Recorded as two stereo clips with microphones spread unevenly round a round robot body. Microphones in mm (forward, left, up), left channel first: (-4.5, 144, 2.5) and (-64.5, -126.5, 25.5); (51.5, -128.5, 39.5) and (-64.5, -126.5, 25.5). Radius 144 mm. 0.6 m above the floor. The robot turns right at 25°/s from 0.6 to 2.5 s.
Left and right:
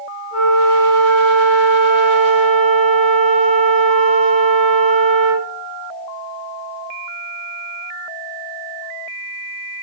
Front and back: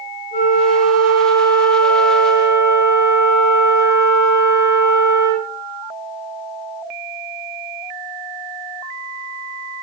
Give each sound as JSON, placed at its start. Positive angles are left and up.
{"t": 0.3, "sound": "a flute", "azimuth_deg": -10, "distance_m": 3.0}